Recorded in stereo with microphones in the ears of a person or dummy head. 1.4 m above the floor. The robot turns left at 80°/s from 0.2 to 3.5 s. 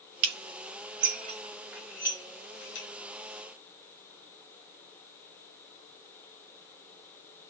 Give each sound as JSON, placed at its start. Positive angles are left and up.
{"t": 0.2, "sound": "dishes clattering", "side_deg": -50, "distance_m": 1.6}